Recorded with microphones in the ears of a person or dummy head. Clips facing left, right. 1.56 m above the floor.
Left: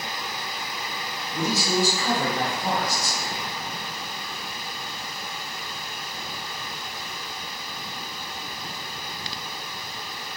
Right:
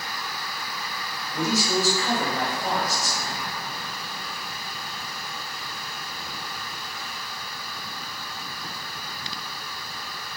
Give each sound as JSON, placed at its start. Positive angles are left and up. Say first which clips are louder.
{"t": 1.3, "sound": "a man speaking", "louder": "even", "side_deg": 30, "distance_m": 1.7}